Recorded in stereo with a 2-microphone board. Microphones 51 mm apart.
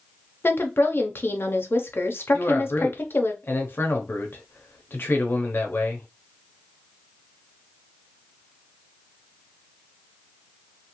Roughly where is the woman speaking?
Left.